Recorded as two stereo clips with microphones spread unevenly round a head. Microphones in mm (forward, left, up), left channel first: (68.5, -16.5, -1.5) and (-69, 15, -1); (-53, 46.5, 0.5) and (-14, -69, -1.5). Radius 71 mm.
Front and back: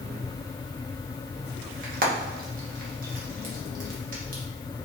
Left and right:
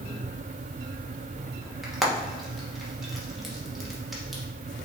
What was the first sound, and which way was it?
Frying, 160° right.